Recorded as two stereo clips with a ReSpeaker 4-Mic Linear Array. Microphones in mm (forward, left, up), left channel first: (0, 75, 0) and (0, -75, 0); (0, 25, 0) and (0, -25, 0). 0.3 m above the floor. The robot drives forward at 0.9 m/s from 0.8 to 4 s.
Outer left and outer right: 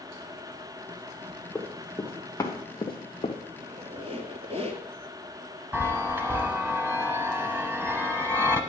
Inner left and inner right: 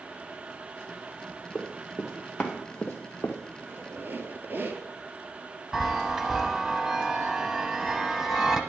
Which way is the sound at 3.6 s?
60° right (ahead or behind).